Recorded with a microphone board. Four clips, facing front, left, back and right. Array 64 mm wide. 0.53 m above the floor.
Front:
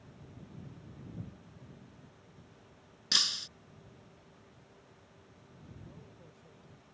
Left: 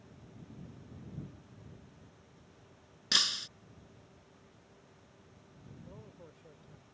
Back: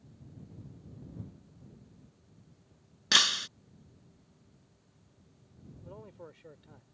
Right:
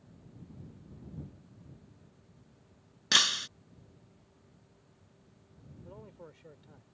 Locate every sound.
3.1 s breaking glass: 145° right
5.8 s a man speaking: 150° right